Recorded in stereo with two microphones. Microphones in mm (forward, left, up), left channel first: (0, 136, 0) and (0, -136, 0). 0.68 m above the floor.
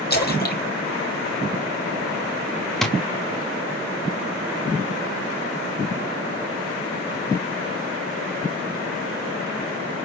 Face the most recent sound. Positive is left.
turn(degrees=0)  # may be behind; listen again after turning